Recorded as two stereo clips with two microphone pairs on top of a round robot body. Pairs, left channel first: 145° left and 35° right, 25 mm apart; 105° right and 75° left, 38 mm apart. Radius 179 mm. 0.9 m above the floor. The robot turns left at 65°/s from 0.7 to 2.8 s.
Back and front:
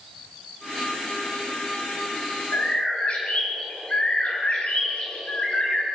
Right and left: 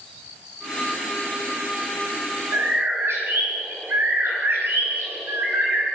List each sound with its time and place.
2.5 s a bird: 120° left, 4 m; by 5.8 s 100° left, 4 m